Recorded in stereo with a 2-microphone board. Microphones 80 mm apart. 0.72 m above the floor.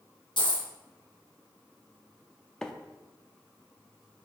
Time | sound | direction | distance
0.4 | a dropped coin | 80° left | 1.9 m
2.6 | a microwave | 10° left (ahead or behind) | 0.5 m